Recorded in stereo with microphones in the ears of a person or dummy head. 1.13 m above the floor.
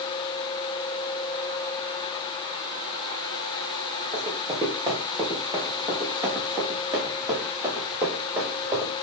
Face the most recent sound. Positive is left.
turn(degrees=-10)  # may be behind; listen again after turning